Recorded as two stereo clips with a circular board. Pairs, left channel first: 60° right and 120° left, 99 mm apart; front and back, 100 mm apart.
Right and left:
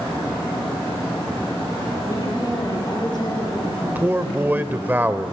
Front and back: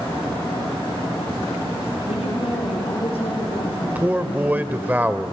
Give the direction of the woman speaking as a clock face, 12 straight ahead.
12 o'clock.